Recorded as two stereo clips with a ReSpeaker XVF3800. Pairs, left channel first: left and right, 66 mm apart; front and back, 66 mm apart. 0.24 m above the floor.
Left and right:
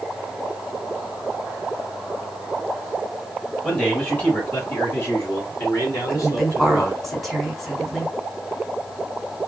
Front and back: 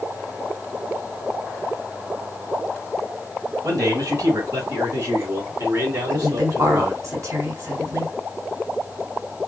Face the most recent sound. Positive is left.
turn(degrees=170)